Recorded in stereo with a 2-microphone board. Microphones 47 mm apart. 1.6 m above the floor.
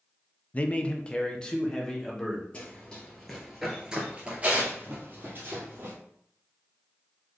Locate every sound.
0.5 s a man speaking: 30° left (ahead or behind), 0.5 m; by 2.4 s 15° left (ahead or behind), 1.8 m
2.5 s running footsteps: 25° left (ahead or behind), 1.9 m; by 5.9 s 55° right (ahead or behind), 2.5 m